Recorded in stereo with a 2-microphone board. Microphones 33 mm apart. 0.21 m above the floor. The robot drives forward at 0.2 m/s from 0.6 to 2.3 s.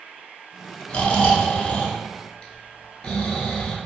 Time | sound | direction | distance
0.9 | snoring | 40° left (ahead or behind) | 0.5 m